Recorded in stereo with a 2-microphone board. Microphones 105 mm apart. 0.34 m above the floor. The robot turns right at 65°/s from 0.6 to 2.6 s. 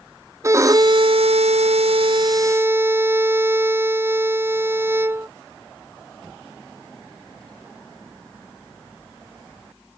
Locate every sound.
0.4 s a violin: 150° right; by 5.3 s 20° right